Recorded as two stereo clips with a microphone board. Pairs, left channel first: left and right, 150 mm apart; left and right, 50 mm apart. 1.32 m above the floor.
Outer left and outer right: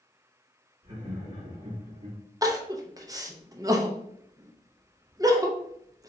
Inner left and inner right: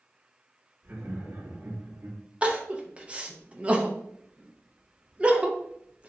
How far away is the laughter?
About 1.6 m.